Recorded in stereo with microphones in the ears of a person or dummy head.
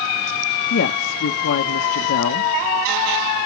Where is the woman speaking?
50° left (ahead or behind), 0.7 m.